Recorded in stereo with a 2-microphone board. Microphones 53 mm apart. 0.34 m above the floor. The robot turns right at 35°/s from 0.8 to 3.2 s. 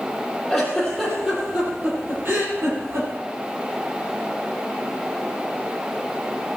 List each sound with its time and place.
0.5 s a giggle: 5° left (ahead or behind), 7.5 m; by 3.1 s 75° right (ahead or behind), 7.5 m